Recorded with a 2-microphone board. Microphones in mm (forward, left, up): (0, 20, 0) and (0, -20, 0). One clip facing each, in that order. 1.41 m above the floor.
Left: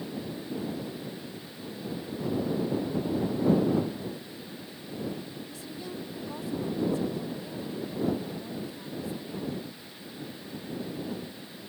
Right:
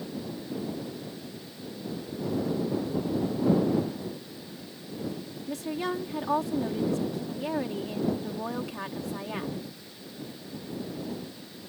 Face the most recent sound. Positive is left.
turn(degrees=-85)